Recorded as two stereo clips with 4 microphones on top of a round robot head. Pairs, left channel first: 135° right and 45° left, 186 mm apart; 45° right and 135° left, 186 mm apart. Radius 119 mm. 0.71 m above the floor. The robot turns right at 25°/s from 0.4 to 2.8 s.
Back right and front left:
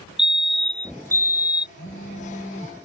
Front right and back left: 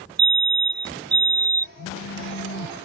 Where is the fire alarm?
130° left; by 1.7 s 165° left.